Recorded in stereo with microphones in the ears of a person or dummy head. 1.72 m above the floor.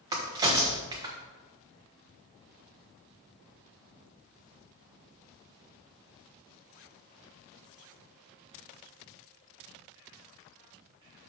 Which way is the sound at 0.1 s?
20° right (ahead or behind).